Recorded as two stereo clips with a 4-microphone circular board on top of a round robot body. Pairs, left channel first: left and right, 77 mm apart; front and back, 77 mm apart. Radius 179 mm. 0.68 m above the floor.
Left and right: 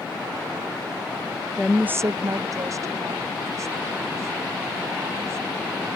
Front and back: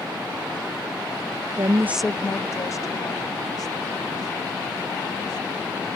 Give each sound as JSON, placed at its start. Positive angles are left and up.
{"t": 1.6, "sound": "a woman speaking", "azimuth_deg": 170}